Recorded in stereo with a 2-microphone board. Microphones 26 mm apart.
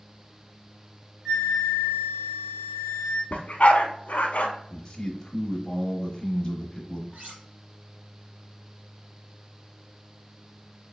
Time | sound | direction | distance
1.2 | a flute | 45° right (ahead or behind) | 1.9 m
3.3 | a dog barking | 60° left (ahead or behind) | 0.7 m
4.7 | a man speaking | 20° left (ahead or behind) | 0.9 m
7.1 | cutlery clinking | 60° right (ahead or behind) | 2 m